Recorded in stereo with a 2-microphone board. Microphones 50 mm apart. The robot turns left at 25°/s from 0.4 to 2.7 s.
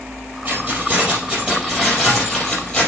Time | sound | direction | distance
0.5 | keys jangling | 140° right | 4.5 m